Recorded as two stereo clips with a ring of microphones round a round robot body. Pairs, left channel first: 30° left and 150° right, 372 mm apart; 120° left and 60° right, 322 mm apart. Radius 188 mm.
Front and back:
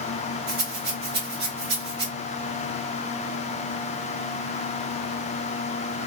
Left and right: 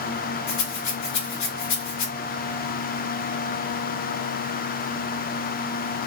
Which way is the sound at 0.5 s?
150° left.